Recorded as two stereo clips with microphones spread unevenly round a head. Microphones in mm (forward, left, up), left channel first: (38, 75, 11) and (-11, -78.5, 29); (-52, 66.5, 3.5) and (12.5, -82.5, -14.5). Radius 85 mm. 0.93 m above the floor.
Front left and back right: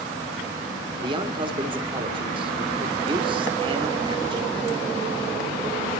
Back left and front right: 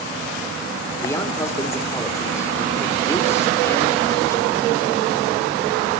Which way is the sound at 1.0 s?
170° right.